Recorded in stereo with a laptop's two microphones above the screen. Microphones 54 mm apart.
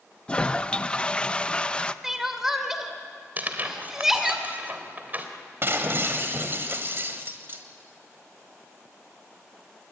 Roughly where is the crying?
Centre.